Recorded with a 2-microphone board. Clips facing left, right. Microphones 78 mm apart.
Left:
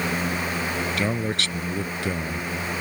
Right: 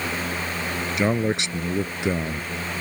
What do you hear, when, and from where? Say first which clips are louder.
1.0 s a man speaking: right 3 dB; 20° right (ahead or behind)